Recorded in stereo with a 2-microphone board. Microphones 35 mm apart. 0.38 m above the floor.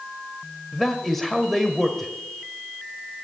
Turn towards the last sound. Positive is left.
turn(degrees=5)  # may be behind; listen again after turning